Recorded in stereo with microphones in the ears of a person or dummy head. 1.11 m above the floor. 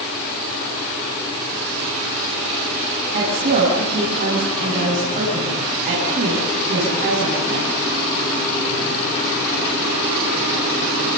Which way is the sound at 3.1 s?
40° right (ahead or behind).